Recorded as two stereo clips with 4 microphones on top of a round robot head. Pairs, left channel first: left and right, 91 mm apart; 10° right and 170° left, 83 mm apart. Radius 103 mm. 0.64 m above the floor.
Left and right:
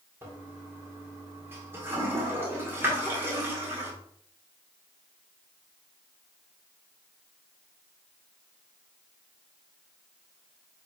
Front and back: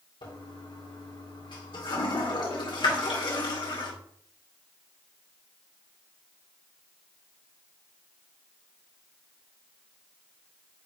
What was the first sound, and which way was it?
A toilet flushing, 25° right.